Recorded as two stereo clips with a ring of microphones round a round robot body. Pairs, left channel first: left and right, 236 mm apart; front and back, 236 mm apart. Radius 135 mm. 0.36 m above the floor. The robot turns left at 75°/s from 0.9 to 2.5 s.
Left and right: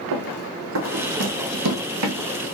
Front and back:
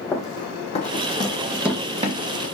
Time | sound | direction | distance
0.1 | running footsteps | 80° right | 1.1 m